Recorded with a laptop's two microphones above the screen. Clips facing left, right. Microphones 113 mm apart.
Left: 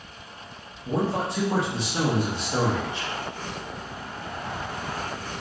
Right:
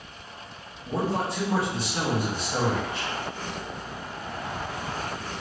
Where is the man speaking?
20° left (ahead or behind), 0.5 m.